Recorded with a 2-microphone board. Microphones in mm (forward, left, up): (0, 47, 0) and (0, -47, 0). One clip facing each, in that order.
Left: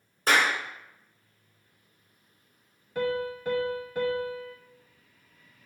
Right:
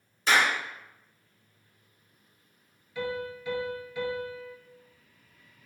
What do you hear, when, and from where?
0.3 s a clap: 45° left (ahead or behind), 1.8 m
3.0 s a piano: 50° left (ahead or behind), 0.8 m